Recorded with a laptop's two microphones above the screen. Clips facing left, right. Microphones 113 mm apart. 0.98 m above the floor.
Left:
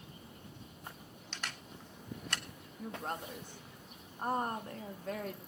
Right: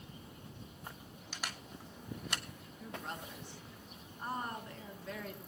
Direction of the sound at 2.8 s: 45° left (ahead or behind).